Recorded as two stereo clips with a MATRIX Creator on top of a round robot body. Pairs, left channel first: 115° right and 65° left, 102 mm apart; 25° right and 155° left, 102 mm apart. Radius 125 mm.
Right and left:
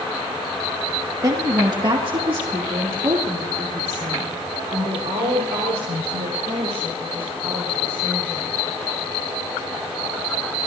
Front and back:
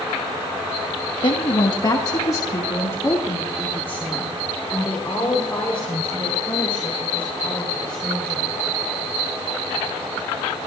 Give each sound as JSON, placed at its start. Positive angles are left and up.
{"t": 1.2, "sound": "a woman speaking", "azimuth_deg": 15, "distance_m": 1.4}